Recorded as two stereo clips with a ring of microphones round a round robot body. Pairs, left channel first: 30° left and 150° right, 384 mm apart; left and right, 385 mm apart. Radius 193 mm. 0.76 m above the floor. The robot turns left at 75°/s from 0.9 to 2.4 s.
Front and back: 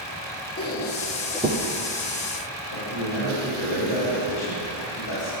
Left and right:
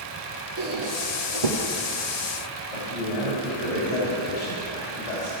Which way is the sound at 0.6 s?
35° right.